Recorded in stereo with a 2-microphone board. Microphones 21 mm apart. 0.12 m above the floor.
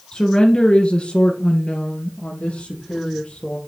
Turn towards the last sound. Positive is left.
turn(degrees=60)  # may be behind; listen again after turning